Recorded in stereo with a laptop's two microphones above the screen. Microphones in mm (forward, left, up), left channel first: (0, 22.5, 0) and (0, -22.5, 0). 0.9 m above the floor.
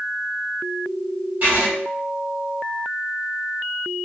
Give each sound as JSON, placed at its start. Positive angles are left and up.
{"t": 1.4, "sound": "writing", "side_deg": -45, "distance_m": 1.7}